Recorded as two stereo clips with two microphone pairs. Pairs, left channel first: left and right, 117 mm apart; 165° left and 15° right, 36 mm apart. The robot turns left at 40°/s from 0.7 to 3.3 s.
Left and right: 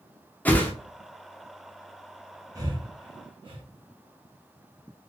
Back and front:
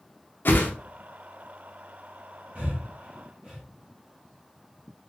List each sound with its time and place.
0.5 s a whoosh: 170° left, 0.6 m
2.5 s breathing: 45° right, 0.9 m; by 3.6 s 75° right, 0.9 m